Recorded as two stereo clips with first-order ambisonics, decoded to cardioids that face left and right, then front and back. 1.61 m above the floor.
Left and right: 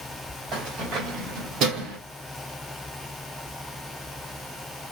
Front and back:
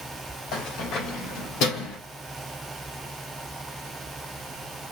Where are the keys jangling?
35° right, 3 m; by 2.0 s 45° right, 3 m.